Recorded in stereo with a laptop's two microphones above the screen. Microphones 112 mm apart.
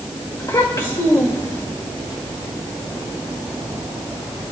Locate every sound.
0.4 s a child speaking: 35° left (ahead or behind), 1.6 m